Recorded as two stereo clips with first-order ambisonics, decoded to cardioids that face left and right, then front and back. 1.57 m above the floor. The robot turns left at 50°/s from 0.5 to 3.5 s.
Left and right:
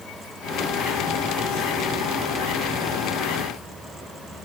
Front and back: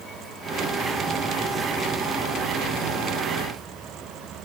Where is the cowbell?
I don't hear a cowbell.